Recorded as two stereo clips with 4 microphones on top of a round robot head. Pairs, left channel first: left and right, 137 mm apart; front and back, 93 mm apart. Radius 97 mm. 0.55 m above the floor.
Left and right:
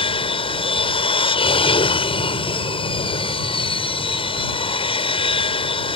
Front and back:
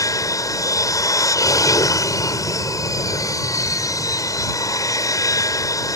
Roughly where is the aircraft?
Ahead left.